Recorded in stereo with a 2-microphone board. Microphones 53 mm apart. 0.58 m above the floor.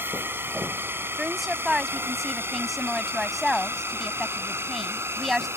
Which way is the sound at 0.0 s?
45° right (ahead or behind).